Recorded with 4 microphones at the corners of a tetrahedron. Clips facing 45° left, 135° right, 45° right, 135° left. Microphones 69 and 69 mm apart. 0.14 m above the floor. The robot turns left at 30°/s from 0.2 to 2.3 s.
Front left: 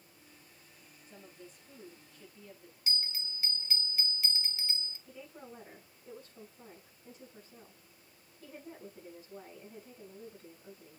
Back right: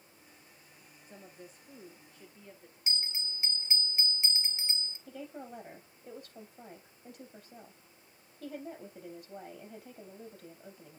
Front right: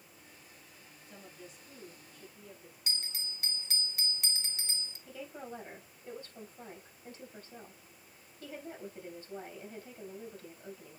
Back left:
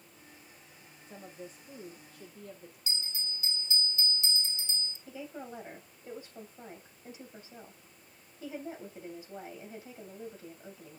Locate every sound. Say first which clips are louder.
1.1 s a woman speaking: back right 2 dB, back left 5 dB; 165° right, 2.5 m; by 2.8 s 160° left, 2.5 m
2.9 s a bell: even, back left 2 dB; 65° right, 1.4 m
5.1 s a woman speaking: back right 5 dB, even; 150° right, 4.5 m